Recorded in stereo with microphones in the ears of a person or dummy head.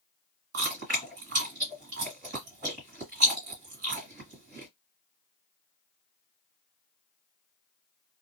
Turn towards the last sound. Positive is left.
turn(degrees=-50)  # may be behind; listen again after turning